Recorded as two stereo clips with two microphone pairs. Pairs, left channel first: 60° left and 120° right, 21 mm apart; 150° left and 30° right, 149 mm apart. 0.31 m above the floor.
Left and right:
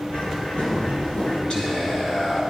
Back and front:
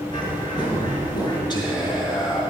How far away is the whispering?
About 3 m.